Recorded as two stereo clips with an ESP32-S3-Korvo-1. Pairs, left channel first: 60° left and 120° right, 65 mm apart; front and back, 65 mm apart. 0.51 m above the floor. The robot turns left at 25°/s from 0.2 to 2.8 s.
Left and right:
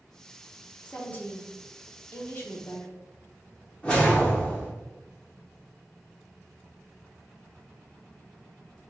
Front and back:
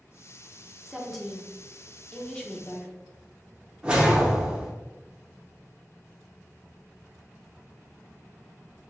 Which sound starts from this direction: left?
A woman speaking, at 0.8 s.